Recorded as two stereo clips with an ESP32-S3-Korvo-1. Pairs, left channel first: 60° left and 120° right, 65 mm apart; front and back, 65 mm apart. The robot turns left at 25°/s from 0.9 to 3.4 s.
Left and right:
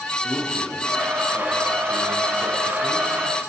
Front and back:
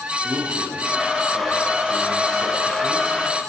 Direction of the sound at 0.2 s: 150° left.